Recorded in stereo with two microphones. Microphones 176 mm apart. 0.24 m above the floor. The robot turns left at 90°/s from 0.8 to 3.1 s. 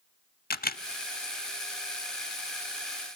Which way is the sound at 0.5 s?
55° left (ahead or behind).